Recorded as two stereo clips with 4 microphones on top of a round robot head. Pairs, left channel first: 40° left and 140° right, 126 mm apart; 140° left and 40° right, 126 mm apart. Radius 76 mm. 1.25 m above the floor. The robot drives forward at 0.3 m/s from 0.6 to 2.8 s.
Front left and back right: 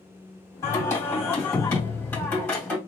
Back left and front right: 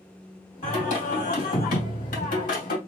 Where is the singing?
105° left, 2.5 m; by 2.8 s 120° left, 3 m.